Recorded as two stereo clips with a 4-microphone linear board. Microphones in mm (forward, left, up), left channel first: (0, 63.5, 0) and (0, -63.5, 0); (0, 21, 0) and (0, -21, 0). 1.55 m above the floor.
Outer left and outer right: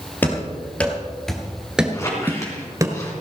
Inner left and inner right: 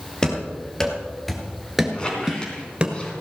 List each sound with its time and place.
0.2 s running footsteps: 15° left (ahead or behind), 2.5 m; by 2.9 s 25° right (ahead or behind), 1.6 m
1.9 s a squeak: 25° left (ahead or behind), 3.5 m